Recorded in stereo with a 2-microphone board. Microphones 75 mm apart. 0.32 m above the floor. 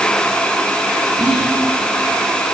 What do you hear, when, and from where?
1.2 s whispering: 65° right (ahead or behind), 3.5 m